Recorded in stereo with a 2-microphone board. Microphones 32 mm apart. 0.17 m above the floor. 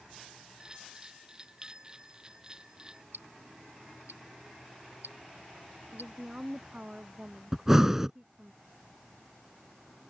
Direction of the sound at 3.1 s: 70° right (ahead or behind).